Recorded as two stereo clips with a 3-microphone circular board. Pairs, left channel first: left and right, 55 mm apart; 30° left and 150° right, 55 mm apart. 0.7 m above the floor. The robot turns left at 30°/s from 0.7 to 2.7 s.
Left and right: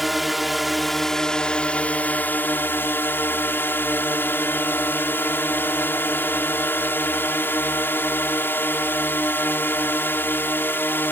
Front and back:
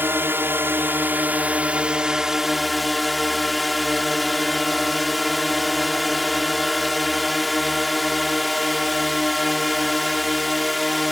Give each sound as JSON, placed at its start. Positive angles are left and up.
{"t": 0.0, "sound": "a drone", "azimuth_deg": 180}